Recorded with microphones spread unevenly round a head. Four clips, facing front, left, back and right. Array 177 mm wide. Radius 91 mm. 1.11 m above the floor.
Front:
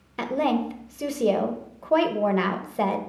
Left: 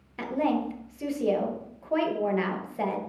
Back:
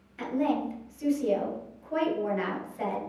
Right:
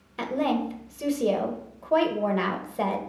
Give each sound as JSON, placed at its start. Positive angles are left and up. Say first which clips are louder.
{"t": 0.2, "sound": "a woman speaking", "louder": "right 1 dB, front 4 dB", "azimuth_deg": -15, "distance_m": 1.5}